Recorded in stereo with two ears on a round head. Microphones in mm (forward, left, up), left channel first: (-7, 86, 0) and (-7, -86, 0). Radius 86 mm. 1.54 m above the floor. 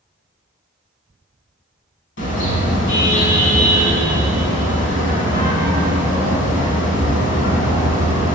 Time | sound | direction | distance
2.2 | a car horn | 70° left (ahead or behind) | 7 m